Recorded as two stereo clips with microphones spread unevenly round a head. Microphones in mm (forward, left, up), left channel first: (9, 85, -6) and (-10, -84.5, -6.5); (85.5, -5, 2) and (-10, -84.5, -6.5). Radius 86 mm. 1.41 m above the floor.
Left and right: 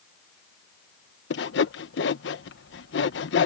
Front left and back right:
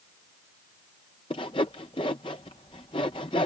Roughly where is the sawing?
Left.